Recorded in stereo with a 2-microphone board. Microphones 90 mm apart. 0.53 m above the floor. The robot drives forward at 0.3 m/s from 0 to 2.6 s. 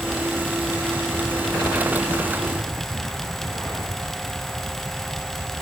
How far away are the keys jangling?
No keys jangling in this recording.